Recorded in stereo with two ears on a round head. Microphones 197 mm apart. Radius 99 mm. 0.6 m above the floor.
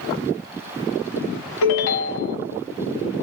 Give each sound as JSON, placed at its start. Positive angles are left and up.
{"t": 1.6, "sound": "a ringtone", "side_deg": 85, "distance_m": 1.7}